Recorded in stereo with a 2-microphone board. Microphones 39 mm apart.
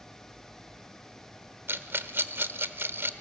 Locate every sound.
1.7 s a rattle: 60° right (ahead or behind), 1.0 m